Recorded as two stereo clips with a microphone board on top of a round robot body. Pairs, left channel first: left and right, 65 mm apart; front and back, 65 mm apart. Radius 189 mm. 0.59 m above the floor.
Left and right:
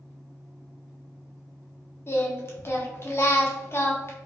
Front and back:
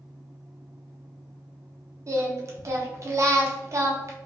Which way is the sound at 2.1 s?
140° left.